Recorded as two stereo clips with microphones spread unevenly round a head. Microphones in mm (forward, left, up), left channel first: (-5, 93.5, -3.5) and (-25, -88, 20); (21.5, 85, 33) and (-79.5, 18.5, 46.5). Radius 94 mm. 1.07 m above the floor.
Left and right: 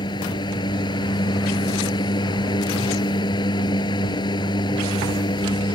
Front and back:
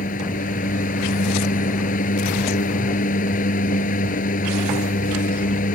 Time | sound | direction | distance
0.0 | a fan | 15° left | ?